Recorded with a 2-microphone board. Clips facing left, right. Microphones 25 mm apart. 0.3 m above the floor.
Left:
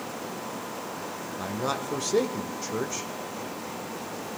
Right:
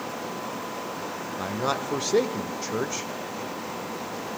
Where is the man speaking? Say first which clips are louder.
Right 2 dB; 20° right (ahead or behind), 0.9 m.